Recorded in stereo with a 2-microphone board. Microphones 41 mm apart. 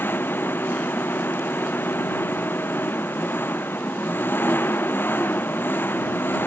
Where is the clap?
No clap in this recording.